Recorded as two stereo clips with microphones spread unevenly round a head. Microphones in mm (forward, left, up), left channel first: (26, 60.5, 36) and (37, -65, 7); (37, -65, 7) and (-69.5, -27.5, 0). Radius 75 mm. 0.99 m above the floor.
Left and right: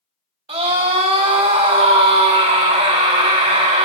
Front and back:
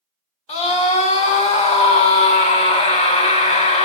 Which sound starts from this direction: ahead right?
A scream, at 0.5 s.